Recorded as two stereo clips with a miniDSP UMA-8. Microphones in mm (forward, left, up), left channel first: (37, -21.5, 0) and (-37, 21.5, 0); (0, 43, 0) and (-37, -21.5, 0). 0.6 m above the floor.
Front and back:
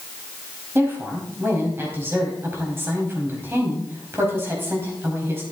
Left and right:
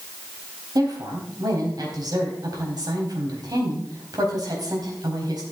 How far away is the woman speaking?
About 4 m.